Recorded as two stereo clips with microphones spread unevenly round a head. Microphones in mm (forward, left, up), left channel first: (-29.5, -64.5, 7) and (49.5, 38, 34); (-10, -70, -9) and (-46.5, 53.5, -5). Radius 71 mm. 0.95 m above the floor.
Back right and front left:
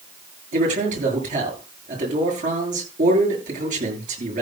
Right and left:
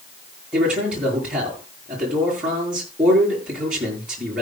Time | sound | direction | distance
0.5 | a man speaking | 20° left | 9.5 m